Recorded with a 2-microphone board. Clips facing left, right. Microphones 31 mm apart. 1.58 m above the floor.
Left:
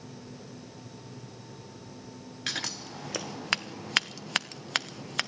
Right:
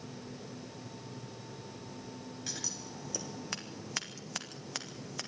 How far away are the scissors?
About 0.9 m.